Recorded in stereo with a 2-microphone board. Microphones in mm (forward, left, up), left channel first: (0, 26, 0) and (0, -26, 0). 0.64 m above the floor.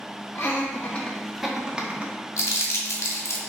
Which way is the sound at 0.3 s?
40° left (ahead or behind).